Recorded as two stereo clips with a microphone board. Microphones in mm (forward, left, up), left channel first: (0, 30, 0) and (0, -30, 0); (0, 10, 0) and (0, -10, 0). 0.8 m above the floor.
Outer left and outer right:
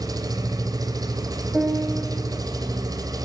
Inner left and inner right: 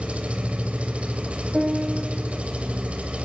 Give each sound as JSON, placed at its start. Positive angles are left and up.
{"t": 0.0, "sound": "an engine running", "side_deg": -75, "distance_m": 3.0}
{"t": 1.5, "sound": "a piano", "side_deg": -15, "distance_m": 4.0}